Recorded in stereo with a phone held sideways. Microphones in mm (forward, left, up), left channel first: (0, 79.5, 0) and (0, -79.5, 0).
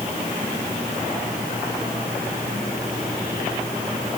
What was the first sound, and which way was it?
Only background noise.